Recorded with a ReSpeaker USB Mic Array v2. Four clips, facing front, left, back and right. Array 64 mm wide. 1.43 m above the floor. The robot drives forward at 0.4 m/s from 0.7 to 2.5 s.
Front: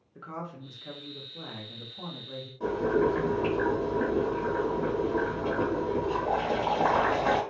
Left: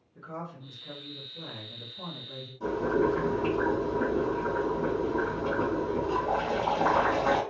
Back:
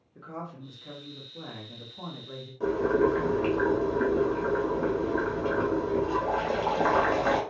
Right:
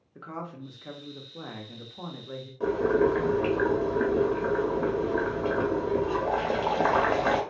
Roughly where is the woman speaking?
Right.